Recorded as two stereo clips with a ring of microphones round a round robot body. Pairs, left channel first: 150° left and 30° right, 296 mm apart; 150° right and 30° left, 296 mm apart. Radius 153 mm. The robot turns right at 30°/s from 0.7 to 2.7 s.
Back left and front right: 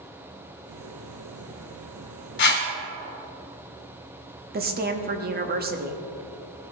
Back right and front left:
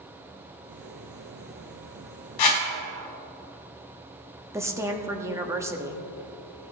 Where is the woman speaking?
40° right, 1.0 m.